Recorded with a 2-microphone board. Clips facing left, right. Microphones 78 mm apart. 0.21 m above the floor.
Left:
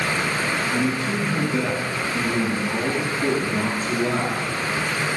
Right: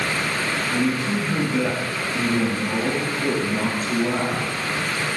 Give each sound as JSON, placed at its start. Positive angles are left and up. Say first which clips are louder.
{"t": 0.7, "sound": "a man speaking", "louder": "right 1 dB", "side_deg": -10, "distance_m": 1.5}